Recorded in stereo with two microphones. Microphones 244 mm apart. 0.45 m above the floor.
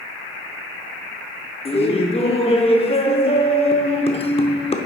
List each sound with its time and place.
1.6 s laughter: 25° left (ahead or behind), 0.8 m